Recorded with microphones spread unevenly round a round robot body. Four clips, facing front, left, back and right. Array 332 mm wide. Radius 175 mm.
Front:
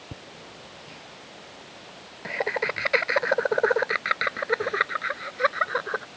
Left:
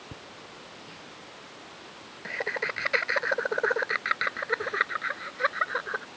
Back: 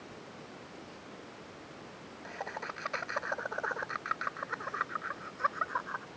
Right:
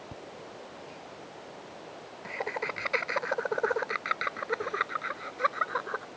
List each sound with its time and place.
0.1 s laughter: 5° left